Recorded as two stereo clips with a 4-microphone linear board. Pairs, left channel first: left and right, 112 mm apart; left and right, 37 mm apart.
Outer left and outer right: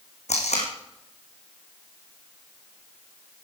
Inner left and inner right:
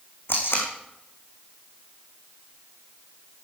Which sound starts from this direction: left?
Tape being pulled, at 0.3 s.